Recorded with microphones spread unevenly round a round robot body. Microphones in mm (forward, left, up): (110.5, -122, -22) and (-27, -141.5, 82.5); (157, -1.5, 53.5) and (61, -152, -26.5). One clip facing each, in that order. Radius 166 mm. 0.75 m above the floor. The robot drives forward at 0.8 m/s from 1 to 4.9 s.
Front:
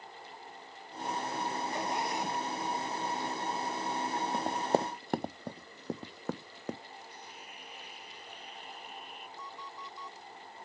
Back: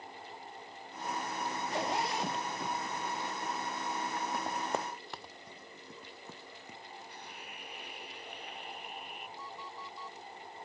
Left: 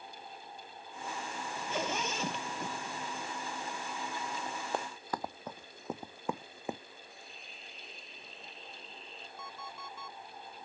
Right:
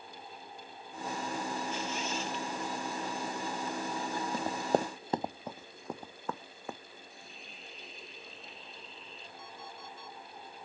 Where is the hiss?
145° left.